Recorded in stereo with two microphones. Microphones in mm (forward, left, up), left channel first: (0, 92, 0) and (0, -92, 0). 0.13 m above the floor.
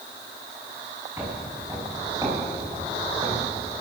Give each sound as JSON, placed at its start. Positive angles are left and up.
{"t": 1.2, "sound": "footsteps", "side_deg": -15, "distance_m": 6.5}